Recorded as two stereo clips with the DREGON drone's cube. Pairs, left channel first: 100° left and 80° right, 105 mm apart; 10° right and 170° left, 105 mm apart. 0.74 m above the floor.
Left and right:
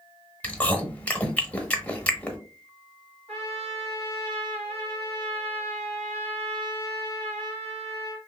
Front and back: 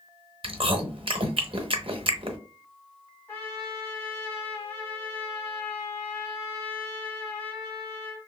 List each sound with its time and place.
0.4 s chewing: 175° left, 0.7 m
3.3 s a trumpet: 85° right, 2 m